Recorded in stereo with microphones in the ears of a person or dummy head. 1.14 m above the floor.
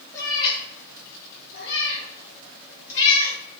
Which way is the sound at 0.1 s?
20° left (ahead or behind).